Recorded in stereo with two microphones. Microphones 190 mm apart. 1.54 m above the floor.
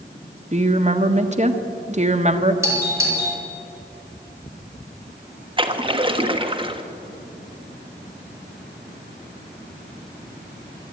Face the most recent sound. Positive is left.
turn(degrees=-25)  # may be behind; listen again after turning